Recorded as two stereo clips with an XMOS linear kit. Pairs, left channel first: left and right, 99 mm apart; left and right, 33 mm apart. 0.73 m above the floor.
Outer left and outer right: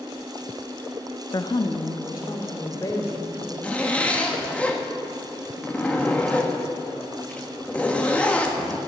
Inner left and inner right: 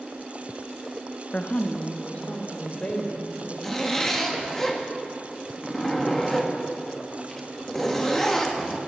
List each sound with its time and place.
1.3 s a woman speaking: 40° left (ahead or behind), 0.5 m; by 3.5 s 35° left (ahead or behind), 3 m
3.6 s a zipper: 15° left (ahead or behind), 1.3 m